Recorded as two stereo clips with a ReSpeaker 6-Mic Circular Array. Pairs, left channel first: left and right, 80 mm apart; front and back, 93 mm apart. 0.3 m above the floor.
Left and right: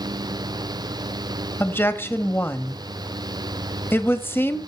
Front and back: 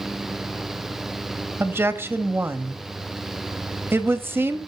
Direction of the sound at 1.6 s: 135° left.